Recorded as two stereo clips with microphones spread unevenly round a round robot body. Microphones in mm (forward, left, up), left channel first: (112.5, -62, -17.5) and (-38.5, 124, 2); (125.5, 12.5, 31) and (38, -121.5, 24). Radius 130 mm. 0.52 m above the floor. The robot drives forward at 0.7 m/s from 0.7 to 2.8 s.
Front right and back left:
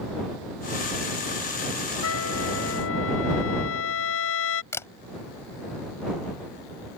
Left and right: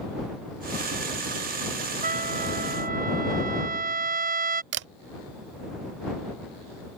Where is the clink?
No clink in this recording.